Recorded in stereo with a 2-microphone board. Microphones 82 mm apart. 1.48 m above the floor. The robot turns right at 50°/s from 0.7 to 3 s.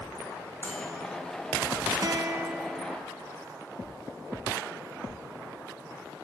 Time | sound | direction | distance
0.6 | a microwave | 20° left (ahead or behind) | 4.5 m
2.0 | a guitar | 55° right | 1.0 m